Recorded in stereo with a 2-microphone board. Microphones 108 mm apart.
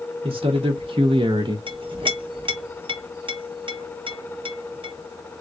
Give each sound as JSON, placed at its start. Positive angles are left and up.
{"t": 0.2, "sound": "a man speaking", "side_deg": -65, "distance_m": 1.1}
{"t": 1.7, "sound": "a clink", "side_deg": -55, "distance_m": 1.2}